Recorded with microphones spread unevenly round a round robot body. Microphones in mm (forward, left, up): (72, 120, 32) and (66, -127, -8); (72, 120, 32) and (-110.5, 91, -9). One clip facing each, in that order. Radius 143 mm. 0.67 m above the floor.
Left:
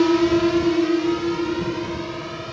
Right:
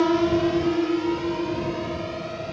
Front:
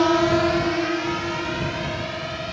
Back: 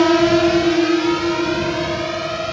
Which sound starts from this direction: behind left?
A drone, at 0.0 s.